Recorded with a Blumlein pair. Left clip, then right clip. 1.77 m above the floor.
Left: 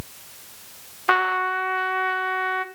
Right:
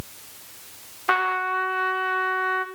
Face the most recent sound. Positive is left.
turn(degrees=10)